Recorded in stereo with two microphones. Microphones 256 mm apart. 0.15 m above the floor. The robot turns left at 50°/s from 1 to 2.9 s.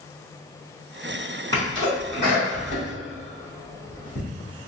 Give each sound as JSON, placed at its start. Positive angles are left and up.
{"t": 1.5, "sound": "a sneeze", "side_deg": 15, "distance_m": 1.3}